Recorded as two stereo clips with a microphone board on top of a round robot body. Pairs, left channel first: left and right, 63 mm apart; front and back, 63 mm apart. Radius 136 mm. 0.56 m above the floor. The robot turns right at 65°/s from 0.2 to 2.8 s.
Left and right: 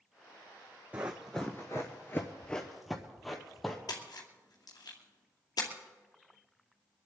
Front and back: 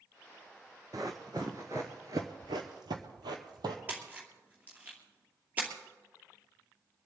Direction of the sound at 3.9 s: 115° left.